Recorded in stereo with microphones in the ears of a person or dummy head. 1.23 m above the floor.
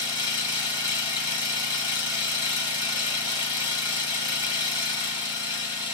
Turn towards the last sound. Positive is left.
turn(degrees=25)  # may be behind; listen again after turning